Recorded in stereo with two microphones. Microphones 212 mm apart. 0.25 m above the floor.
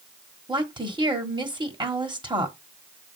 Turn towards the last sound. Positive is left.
turn(degrees=-20)  # may be behind; listen again after turning